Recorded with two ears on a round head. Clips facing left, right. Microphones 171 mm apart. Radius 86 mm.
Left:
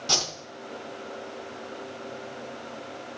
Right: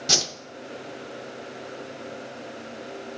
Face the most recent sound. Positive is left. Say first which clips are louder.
# right 2 dB
turn(degrees=-20)  # may be behind; listen again after turning